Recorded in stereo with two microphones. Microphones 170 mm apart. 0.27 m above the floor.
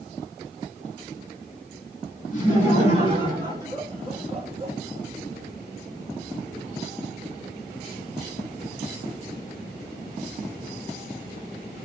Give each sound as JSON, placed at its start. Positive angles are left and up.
{"t": 2.3, "sound": "laughter", "side_deg": 45, "distance_m": 1.9}